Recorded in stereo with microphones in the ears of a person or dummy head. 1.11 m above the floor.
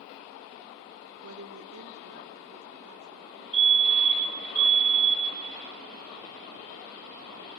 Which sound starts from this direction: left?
A fire alarm, at 3.5 s.